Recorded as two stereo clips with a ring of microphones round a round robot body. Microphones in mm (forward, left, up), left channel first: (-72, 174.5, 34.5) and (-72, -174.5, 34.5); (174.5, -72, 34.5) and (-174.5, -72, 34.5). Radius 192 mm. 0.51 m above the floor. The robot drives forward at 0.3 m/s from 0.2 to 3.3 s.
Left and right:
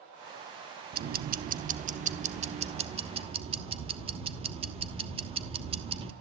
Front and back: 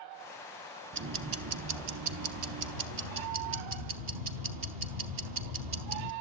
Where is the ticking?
140° right, 0.8 m; by 6.1 s 165° right, 1.3 m.